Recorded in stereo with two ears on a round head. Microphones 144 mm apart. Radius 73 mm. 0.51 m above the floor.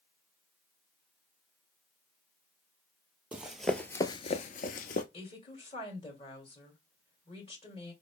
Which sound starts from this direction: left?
A woman speaking, at 5.1 s.